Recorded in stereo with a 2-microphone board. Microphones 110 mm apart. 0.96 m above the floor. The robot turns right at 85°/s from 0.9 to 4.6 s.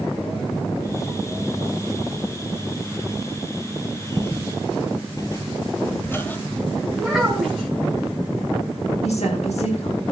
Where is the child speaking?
5° right (ahead or behind), 4 m.